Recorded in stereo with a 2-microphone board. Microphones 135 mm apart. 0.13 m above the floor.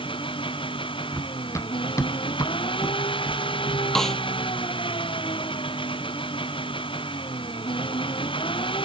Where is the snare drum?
5° left (ahead or behind).